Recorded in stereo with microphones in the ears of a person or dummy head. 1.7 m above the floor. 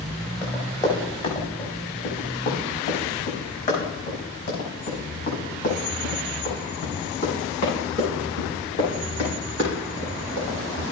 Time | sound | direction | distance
0.4 | running footsteps | 15° left (ahead or behind) | 5 m